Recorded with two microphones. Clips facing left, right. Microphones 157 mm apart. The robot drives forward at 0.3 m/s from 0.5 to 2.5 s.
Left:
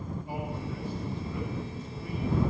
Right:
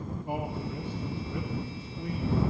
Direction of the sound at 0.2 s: 60° right (ahead or behind).